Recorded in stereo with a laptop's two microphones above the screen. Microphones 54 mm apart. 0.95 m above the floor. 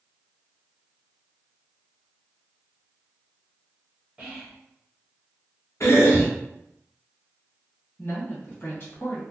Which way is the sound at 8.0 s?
40° left (ahead or behind).